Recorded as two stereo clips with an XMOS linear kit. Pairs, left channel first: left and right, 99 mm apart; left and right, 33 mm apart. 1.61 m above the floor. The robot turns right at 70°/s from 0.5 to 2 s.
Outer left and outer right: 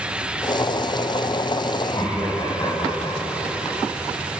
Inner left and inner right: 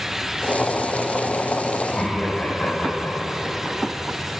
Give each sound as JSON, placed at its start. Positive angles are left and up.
{"t": 1.8, "sound": "laughter", "side_deg": 65, "distance_m": 6.0}